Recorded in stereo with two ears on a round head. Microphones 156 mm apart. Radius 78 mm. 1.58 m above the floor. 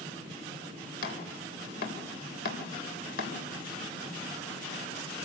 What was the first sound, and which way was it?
Chopping, 55° left (ahead or behind).